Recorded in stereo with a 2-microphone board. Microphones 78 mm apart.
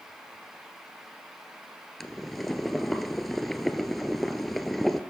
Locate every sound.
2.0 s boiling: 5° left (ahead or behind), 0.6 m